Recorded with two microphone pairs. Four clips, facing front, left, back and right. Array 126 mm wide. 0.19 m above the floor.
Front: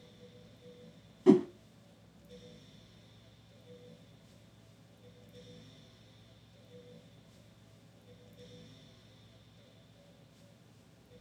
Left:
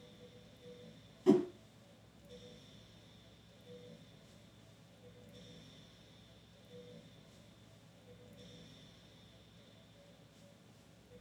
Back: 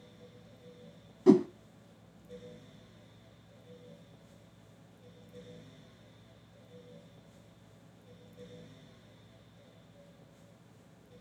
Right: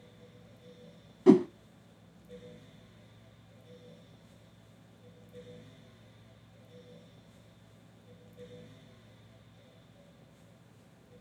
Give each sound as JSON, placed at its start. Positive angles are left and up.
{"t": 1.3, "sound": "a whoosh", "azimuth_deg": -100, "distance_m": 0.7}